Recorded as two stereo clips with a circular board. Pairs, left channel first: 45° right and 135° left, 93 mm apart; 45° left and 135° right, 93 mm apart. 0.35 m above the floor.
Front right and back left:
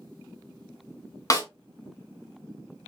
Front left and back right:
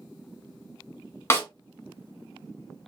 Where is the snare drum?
10° right, 1.0 m.